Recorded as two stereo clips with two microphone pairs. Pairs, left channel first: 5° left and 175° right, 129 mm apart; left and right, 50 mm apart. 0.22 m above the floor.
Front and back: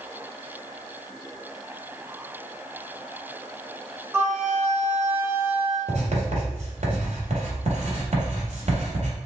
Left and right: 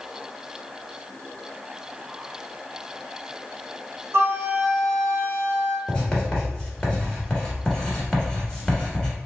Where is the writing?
160° left, 1.2 m.